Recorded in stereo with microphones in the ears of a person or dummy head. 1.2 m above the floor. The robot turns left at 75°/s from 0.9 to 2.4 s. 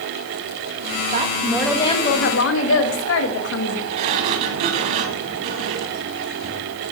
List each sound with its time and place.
1.1 s a woman speaking: 140° right, 1.6 m; by 3.8 s 120° left, 1.6 m
3.9 s a sliding door: 40° right (ahead or behind), 1.4 m